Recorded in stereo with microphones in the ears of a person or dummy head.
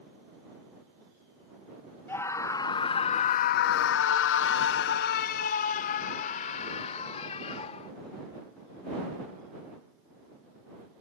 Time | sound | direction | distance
2.1 | a scream | 20° left (ahead or behind) | ?